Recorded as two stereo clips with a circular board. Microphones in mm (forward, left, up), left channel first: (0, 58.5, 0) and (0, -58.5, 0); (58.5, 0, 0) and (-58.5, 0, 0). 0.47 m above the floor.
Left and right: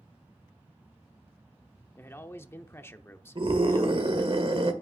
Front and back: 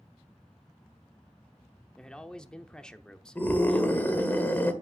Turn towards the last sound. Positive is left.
turn(degrees=-70)